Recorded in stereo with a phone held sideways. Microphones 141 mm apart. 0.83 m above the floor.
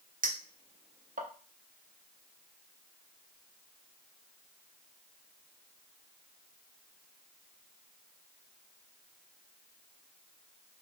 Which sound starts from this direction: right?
A clink, at 0.2 s.